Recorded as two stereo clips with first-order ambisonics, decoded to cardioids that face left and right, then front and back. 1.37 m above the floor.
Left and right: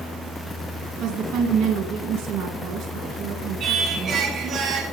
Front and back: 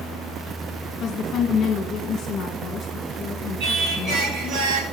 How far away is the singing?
About 2 m.